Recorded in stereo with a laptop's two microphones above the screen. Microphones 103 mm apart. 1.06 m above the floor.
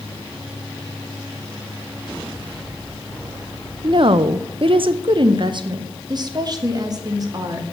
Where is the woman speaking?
50° right (ahead or behind), 0.6 m; by 7.7 s 35° right (ahead or behind), 2 m.